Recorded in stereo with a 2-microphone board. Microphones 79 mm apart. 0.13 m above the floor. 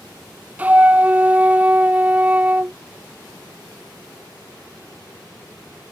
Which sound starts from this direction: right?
A flute, at 0.6 s.